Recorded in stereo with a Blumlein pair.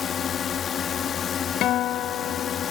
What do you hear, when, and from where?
0.0 s a drone: 25° left
1.6 s a guitar: 35° left